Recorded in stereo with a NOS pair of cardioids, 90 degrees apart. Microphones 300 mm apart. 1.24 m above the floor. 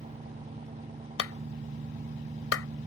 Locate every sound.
0.0 s an engine running: 25° right
1.2 s a clap: 50° left